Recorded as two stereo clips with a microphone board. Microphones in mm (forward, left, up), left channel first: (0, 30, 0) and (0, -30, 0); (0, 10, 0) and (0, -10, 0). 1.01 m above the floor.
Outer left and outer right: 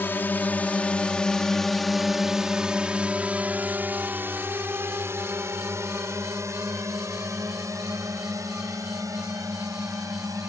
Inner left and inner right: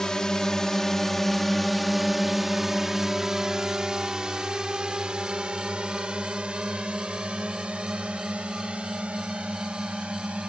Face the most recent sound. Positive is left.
turn(degrees=-65)  # may be behind; listen again after turning